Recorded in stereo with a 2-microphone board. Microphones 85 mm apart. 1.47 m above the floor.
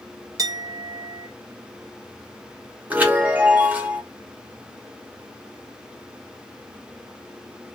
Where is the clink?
40° right (ahead or behind), 0.6 m.